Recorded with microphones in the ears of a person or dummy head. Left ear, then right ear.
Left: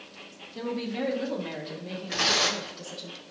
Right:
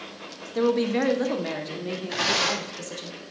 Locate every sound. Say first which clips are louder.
0.6 s a woman speaking: right 9 dB; 55° right (ahead or behind), 1.1 m; by 3.1 s 60° right (ahead or behind), 3 m
2.1 s tearing paper: even; centre (ahead or behind), 2 m